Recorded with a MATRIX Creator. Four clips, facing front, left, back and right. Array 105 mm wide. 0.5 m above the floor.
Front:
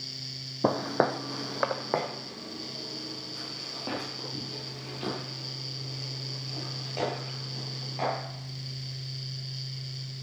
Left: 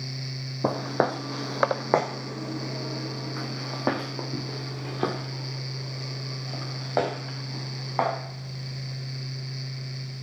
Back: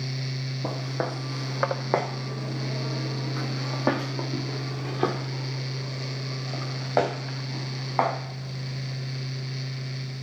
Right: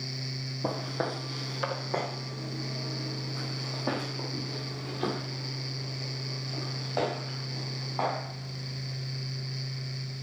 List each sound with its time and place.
0.6 s footsteps: 40° left, 0.7 m; by 8.2 s 150° left, 4 m